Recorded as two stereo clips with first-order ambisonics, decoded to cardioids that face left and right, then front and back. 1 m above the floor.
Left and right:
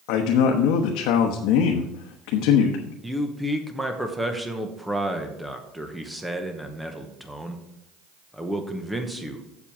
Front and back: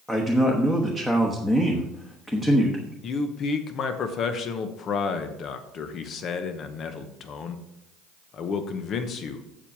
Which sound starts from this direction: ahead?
A man speaking, at 3.0 s.